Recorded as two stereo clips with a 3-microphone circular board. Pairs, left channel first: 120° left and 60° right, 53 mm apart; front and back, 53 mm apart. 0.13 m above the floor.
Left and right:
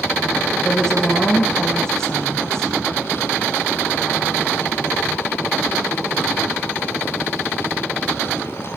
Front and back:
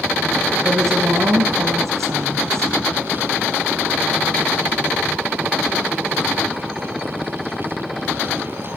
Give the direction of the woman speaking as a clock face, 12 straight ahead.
5 o'clock.